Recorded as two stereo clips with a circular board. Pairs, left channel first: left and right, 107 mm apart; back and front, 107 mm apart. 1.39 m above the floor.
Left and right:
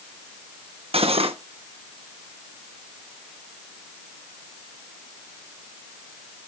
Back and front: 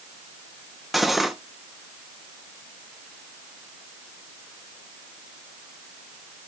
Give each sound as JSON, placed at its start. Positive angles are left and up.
{"t": 0.9, "sound": "cutlery clinking", "azimuth_deg": -90, "distance_m": 1.1}